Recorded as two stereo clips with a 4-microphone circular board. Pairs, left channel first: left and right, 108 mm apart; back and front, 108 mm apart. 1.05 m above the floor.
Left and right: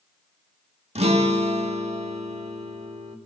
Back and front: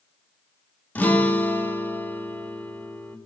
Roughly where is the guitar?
Right.